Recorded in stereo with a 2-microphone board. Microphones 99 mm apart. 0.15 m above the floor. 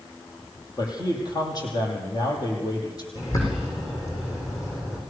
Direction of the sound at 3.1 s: 35° left (ahead or behind).